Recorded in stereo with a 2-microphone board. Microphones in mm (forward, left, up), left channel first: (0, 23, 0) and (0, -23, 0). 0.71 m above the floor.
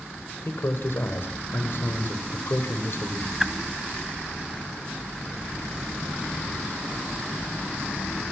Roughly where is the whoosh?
Centre.